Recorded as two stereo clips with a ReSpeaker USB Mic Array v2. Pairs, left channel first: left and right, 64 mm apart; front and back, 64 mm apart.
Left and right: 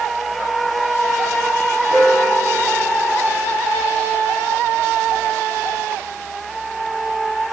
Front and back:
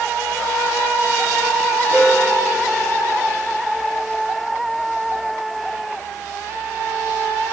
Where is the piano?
60° left, 2.5 m.